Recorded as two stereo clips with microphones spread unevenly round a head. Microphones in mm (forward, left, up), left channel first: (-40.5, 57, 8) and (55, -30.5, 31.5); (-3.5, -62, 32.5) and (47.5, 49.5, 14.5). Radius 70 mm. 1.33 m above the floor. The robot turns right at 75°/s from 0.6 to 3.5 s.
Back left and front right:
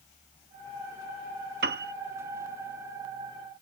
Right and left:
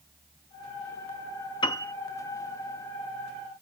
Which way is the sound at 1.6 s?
60° right.